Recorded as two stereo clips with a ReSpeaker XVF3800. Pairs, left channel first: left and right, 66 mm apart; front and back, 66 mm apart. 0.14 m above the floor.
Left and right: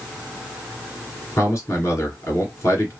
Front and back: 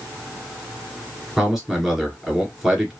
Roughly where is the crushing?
No crushing in this recording.